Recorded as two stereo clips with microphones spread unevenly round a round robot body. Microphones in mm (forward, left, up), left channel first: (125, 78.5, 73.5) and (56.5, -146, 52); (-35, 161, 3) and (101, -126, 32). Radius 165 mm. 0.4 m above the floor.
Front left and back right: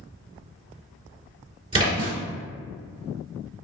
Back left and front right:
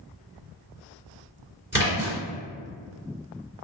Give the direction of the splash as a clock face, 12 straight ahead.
5 o'clock.